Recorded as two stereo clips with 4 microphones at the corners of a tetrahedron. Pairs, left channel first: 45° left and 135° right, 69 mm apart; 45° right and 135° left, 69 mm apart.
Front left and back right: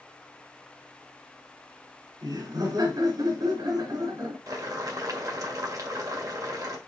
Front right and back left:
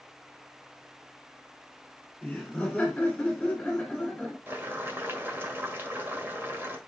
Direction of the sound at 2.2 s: 120° right.